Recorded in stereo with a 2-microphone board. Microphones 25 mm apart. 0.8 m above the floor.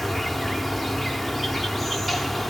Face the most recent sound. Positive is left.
turn(degrees=0)  # may be behind; listen again after turning